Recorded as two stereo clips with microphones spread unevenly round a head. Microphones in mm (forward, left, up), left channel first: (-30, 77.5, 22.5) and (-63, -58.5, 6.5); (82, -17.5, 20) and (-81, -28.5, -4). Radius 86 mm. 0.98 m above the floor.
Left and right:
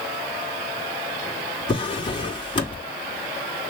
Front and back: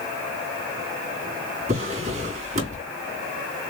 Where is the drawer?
125° left, 3.5 m.